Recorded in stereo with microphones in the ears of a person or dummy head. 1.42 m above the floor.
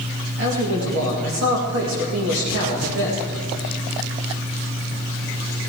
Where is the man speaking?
60° right (ahead or behind), 2.0 m.